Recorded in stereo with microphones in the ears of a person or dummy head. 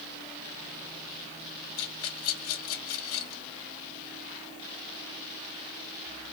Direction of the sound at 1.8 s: 85° left.